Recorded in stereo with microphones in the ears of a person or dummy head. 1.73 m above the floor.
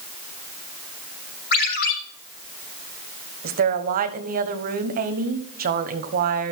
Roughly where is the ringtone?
Left.